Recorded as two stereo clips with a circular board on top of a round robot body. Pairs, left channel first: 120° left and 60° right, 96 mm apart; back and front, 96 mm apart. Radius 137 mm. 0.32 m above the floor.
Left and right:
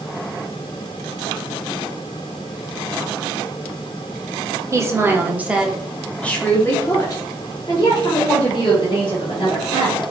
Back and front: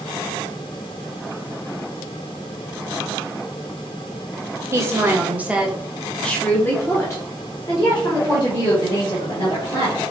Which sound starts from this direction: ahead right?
A woman speaking, at 4.7 s.